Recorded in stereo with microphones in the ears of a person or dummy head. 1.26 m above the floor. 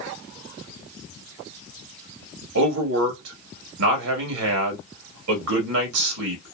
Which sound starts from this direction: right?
A man speaking, at 2.5 s.